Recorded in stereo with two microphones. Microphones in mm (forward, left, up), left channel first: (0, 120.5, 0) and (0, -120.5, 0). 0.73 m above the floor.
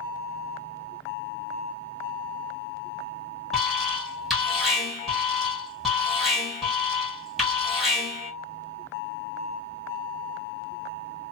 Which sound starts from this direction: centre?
An alarm, at 3.5 s.